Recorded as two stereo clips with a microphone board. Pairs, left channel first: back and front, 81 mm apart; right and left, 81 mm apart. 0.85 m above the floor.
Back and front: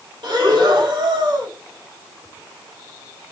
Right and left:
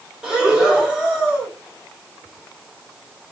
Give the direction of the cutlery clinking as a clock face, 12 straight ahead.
I don't hear cutlery clinking.